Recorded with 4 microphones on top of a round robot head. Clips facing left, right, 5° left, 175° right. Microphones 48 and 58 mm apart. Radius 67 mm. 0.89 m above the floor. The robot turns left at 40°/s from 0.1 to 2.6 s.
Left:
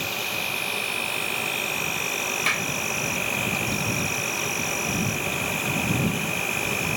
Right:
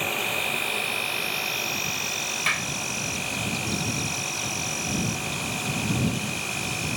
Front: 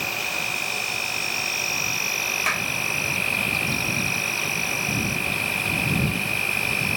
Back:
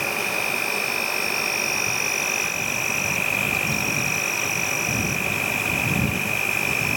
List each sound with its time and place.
0.0 s an insect: 145° right; by 7.0 s 115° left
2.5 s a clap: 5° left; by 2.7 s 5° right